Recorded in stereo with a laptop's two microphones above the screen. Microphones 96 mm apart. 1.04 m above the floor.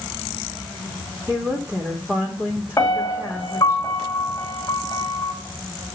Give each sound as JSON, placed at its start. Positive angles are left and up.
{"t": 1.3, "sound": "a woman speaking", "side_deg": -20, "distance_m": 3.5}
{"t": 2.8, "sound": "a piano", "side_deg": 30, "distance_m": 3.0}